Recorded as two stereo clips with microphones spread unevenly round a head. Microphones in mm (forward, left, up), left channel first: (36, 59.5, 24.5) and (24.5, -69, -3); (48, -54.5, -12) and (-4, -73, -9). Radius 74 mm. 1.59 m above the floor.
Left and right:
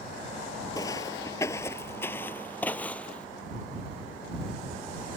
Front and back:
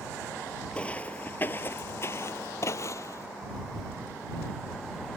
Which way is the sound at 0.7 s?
90° left.